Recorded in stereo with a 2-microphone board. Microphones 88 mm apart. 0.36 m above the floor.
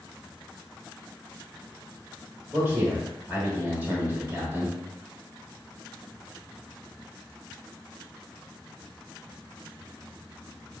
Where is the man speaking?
20° right (ahead or behind), 1.0 m.